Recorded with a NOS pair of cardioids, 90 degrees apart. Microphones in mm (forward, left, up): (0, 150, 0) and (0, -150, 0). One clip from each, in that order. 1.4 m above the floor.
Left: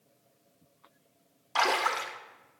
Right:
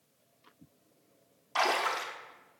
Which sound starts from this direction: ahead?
A splash, at 1.6 s.